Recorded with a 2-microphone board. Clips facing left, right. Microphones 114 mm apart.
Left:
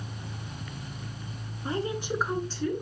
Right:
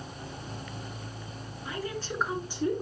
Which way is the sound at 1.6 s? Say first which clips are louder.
Left 5 dB; 35° left (ahead or behind).